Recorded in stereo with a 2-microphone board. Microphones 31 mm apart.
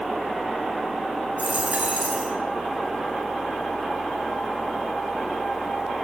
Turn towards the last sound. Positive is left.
turn(degrees=-60)  # may be behind; listen again after turning